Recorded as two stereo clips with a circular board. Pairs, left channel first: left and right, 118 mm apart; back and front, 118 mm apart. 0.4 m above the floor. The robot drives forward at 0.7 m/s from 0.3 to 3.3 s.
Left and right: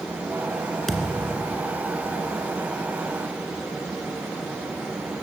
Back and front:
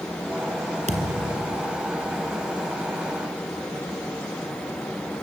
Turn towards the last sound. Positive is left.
turn(degrees=30)